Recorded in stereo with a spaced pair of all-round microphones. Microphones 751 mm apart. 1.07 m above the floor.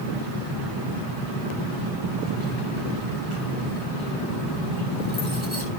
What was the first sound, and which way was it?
Keys jangling, 40° right (ahead or behind).